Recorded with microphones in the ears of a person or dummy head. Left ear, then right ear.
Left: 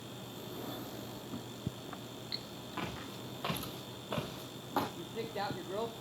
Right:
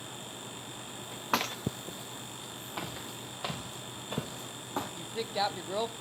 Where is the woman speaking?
35° right (ahead or behind), 0.8 m.